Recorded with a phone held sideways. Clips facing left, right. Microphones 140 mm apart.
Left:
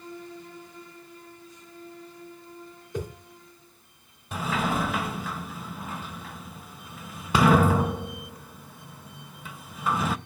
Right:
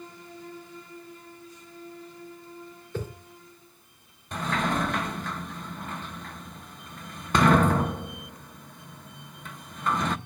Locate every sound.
2.9 s a whoosh: 15° left (ahead or behind), 4 m
4.3 s a sliding door: 5° left (ahead or behind), 0.6 m